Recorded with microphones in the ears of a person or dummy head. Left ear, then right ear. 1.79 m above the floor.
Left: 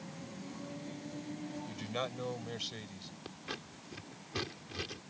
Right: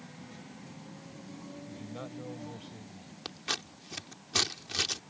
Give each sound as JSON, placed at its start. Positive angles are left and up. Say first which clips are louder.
{"t": 1.7, "sound": "a man speaking", "louder": "left 7 dB", "side_deg": 65}
{"t": 3.2, "sound": "scissors", "louder": "right 10 dB", "side_deg": -35}